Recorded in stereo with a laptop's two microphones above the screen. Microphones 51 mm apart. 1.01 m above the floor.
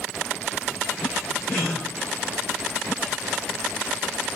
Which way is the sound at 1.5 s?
35° left (ahead or behind).